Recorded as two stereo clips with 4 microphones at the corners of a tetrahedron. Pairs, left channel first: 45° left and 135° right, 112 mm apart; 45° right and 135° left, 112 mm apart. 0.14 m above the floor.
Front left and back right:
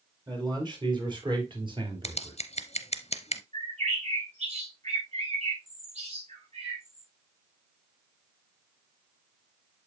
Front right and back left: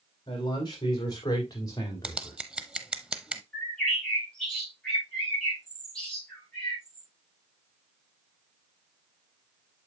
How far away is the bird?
About 6 m.